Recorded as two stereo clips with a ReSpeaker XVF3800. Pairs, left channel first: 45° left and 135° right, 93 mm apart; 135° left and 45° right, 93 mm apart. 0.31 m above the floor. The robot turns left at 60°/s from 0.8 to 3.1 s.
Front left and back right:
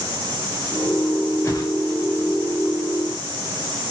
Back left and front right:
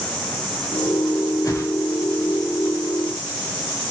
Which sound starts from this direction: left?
A whoosh, at 1.4 s.